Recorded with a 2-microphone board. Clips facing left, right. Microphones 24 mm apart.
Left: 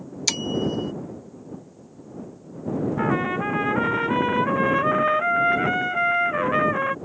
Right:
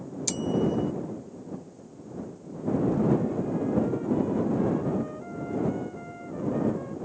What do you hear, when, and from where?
0.3 s a bicycle bell: 45° left (ahead or behind)
3.0 s a trumpet: 85° left